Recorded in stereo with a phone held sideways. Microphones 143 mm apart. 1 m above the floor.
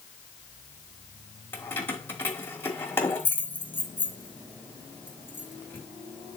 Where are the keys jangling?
15° left (ahead or behind), 1.3 m.